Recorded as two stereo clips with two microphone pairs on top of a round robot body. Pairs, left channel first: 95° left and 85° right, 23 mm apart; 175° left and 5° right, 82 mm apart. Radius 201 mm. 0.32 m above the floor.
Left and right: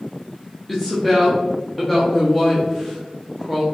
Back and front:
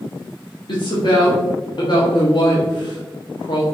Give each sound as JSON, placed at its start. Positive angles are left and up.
{"t": 0.7, "sound": "a woman speaking", "azimuth_deg": 180, "distance_m": 1.0}